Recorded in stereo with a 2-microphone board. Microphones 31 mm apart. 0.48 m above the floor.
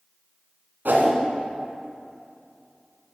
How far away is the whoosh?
About 1.7 m.